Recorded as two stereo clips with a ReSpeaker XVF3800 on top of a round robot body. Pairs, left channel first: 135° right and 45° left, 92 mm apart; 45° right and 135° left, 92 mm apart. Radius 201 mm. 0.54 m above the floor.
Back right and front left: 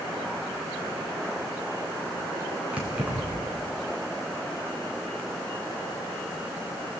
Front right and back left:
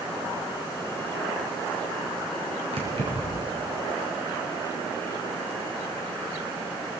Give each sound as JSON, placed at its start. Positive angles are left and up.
{"t": 2.7, "sound": "keys jangling", "azimuth_deg": 120, "distance_m": 5.5}